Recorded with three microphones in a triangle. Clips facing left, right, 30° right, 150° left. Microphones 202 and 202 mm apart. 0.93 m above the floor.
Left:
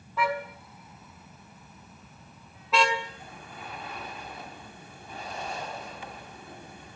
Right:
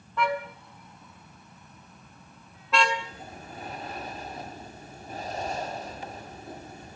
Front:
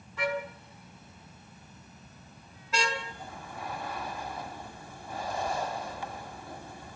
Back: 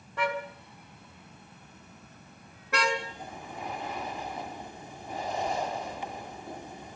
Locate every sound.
0.2 s a car horn: 175° left, 4 m; by 2.9 s straight behind, 5.5 m
3.0 s breathing: 140° right, 2 m